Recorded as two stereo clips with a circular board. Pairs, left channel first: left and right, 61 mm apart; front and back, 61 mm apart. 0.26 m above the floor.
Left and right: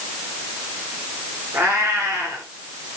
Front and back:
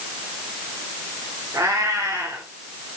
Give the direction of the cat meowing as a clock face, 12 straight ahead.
5 o'clock.